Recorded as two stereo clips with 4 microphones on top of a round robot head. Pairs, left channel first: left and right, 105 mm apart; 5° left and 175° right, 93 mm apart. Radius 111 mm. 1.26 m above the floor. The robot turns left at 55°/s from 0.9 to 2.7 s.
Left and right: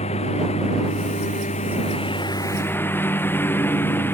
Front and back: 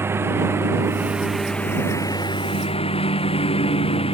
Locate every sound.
0.0 s a lawn mower: 120° left; by 4.1 s 20° left